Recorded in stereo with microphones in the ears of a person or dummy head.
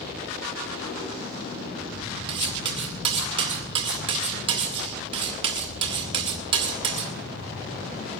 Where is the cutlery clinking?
35° right (ahead or behind), 1.9 m.